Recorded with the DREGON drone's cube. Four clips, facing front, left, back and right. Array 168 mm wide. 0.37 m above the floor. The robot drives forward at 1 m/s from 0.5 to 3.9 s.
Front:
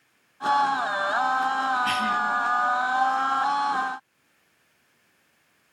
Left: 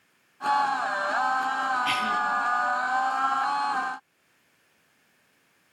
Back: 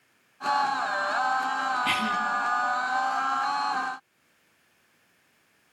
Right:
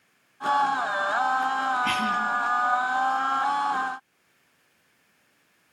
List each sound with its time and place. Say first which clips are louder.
1.8 s a cough: right 1 dB, front 2 dB; 110° right, 4.5 m; by 2.2 s 115° right, 4.5 m